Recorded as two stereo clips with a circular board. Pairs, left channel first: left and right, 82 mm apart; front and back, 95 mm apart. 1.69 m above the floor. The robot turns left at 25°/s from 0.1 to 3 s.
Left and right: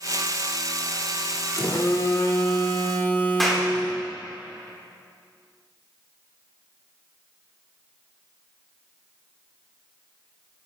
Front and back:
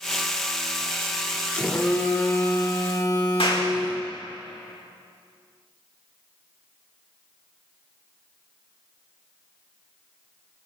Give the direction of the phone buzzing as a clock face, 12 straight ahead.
10 o'clock.